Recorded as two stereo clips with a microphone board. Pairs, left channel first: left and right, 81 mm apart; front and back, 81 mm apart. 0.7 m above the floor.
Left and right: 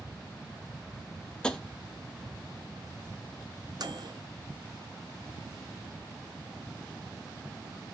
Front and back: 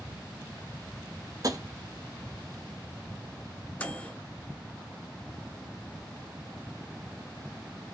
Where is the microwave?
70° right, 0.6 m.